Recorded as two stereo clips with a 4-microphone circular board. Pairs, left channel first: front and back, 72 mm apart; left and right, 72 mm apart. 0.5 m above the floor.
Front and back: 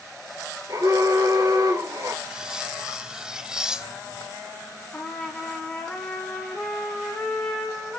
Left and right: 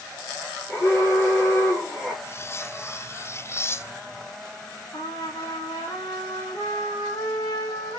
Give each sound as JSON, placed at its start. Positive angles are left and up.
{"t": 0.7, "sound": "an alarm", "azimuth_deg": 150, "distance_m": 8.0}
{"t": 2.2, "sound": "cutlery clinking", "azimuth_deg": 105, "distance_m": 0.5}
{"t": 4.9, "sound": "a trumpet", "azimuth_deg": 85, "distance_m": 3.5}